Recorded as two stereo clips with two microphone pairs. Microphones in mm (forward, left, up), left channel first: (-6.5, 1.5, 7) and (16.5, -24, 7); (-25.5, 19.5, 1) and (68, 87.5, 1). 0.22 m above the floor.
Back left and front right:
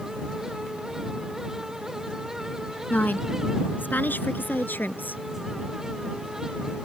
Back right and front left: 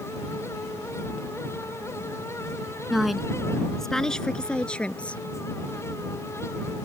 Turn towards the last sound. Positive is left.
turn(degrees=140)